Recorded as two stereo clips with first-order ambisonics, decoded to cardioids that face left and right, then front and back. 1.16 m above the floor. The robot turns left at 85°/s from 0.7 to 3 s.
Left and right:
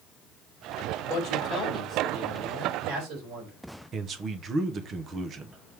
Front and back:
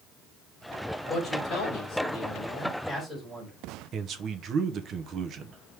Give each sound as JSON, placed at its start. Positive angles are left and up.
{"t": 1.1, "sound": "a man speaking", "azimuth_deg": 65, "distance_m": 4.0}
{"t": 3.9, "sound": "a man speaking", "azimuth_deg": -140, "distance_m": 0.8}